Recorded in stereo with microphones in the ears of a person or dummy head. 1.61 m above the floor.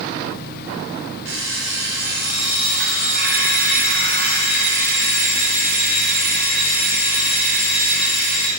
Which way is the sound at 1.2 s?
75° right (ahead or behind).